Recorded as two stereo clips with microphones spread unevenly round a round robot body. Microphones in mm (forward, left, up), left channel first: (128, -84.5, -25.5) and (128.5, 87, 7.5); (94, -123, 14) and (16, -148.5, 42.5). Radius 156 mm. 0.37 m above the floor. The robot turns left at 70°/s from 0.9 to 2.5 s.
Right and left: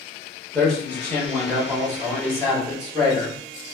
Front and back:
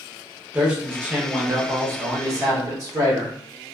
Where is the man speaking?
55° right, 0.8 m; by 3.4 s 165° right, 0.8 m.